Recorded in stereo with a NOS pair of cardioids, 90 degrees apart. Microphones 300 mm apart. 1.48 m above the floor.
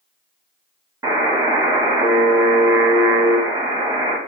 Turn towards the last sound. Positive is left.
turn(degrees=-10)